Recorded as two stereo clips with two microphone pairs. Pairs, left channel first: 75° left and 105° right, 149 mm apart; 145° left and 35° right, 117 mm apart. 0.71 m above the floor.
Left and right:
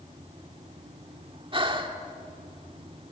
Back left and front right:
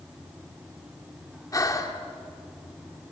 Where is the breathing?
155° right, 1.8 m.